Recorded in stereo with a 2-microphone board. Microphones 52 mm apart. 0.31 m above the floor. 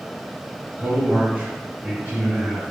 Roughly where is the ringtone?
I don't hear a ringtone.